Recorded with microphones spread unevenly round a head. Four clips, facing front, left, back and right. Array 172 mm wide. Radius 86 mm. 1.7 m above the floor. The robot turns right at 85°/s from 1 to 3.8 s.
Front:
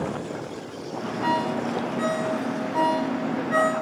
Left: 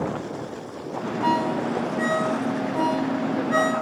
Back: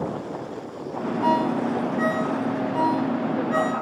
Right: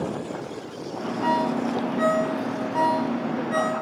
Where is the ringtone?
175° right, 6.5 m; by 3.7 s 40° left, 6.5 m.